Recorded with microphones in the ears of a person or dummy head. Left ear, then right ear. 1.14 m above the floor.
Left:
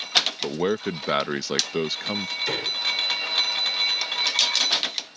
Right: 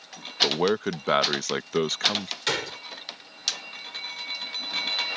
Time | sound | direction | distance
0.4 | a man speaking | 35° right (ahead or behind) | ?
2.5 | a gunshot | 50° right (ahead or behind) | ?